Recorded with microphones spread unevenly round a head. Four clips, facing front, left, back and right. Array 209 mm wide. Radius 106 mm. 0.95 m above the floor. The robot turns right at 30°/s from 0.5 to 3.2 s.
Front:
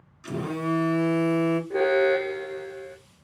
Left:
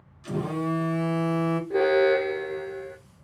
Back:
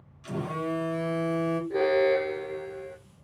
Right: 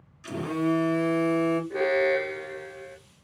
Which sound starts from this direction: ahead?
A phone buzzing, at 0.2 s.